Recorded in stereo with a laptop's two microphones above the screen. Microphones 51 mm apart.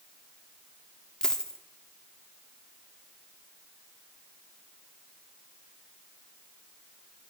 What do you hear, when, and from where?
1.2 s a dropped coin: 15° left (ahead or behind), 0.6 m